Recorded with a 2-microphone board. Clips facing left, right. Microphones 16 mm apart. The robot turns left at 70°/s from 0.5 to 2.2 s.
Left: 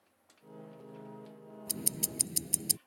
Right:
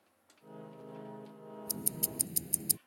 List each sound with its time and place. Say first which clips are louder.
1.7 s ticking: left 3 dB; 70° left; by 2.8 s 35° left